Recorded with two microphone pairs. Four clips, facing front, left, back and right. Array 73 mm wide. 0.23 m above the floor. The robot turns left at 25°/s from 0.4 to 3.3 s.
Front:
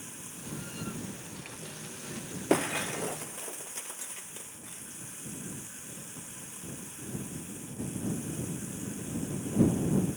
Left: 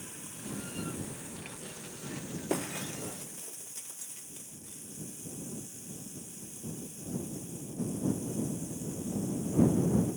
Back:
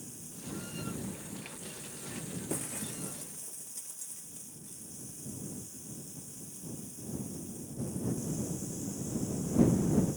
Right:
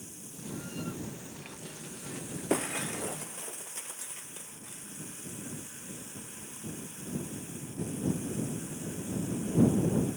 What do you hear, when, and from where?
0.0 s running water: 35° left; by 10.2 s 40° right
2.5 s breaking glass: 10° right; by 4.8 s 30° right